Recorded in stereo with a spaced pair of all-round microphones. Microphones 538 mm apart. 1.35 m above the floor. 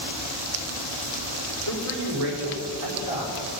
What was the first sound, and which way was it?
A man speaking, 75° right (ahead or behind).